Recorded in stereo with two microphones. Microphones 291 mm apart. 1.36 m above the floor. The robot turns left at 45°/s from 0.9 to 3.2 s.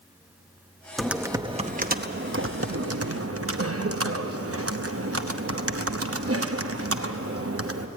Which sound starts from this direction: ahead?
Typing on a keyboard, at 1.0 s.